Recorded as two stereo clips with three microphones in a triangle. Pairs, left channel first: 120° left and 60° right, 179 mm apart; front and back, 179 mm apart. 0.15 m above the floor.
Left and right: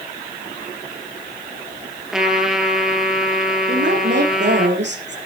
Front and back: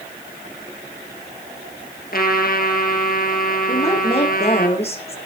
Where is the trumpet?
25° left, 3.5 m.